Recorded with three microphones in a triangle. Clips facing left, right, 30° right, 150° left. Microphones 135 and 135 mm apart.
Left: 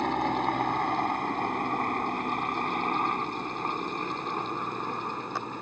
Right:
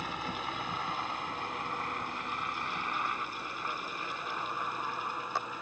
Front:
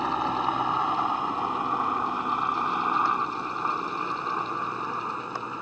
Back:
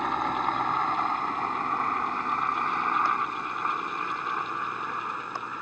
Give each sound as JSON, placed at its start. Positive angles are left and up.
{"t": 0.0, "sound": "a helicopter", "azimuth_deg": 55}